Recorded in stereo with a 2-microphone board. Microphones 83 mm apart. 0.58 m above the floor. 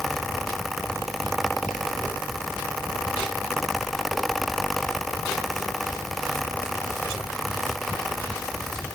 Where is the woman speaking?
I don't hear a woman speaking.